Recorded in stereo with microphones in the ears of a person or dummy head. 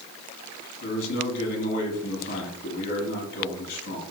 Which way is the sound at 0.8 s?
60° left (ahead or behind).